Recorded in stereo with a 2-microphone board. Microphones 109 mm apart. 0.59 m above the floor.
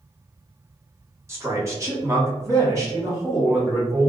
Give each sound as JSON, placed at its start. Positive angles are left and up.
{"t": 1.3, "sound": "a man speaking", "side_deg": -25, "distance_m": 1.1}